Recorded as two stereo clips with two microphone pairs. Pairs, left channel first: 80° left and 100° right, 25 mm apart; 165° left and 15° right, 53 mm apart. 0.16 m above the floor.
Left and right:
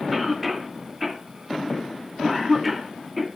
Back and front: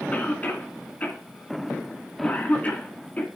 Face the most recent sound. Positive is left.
turn(degrees=-175)